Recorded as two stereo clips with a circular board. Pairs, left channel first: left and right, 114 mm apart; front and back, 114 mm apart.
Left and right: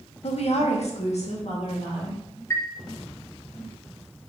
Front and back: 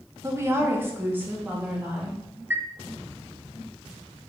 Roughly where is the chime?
Behind left.